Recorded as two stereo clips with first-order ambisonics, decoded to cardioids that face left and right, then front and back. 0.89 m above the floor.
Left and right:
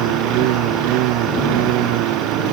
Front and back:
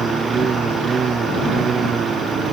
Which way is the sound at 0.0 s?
110° right.